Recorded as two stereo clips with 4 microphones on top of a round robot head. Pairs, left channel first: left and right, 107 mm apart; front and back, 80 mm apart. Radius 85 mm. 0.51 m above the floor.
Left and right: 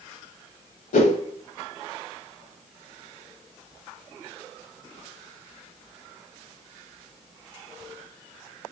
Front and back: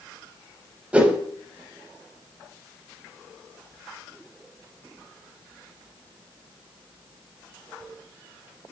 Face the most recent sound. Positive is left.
turn(degrees=105)